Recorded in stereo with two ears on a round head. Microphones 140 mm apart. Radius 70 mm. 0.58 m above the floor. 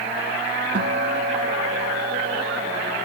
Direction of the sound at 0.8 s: 80° right.